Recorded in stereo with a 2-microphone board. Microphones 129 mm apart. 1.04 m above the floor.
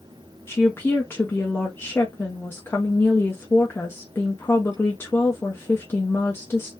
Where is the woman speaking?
20° left (ahead or behind), 0.7 m.